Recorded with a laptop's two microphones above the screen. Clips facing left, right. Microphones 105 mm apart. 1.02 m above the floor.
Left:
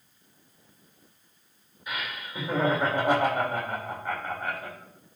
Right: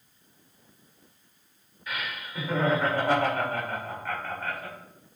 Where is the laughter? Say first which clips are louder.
Even; 20° left (ahead or behind), 2.5 m.